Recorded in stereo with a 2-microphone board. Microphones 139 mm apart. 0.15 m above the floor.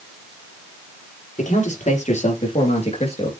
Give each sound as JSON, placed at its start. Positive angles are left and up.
{"t": 1.4, "sound": "a man speaking", "side_deg": 60, "distance_m": 4.0}